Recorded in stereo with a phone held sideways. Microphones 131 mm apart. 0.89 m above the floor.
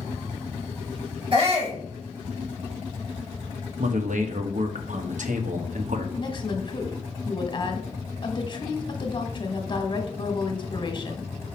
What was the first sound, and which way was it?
A shout, 45° right (ahead or behind).